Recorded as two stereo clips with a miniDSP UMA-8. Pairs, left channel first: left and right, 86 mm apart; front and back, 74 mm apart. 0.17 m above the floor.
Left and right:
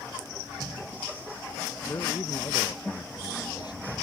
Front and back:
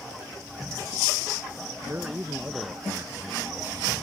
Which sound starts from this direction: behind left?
A man speaking, at 1.9 s.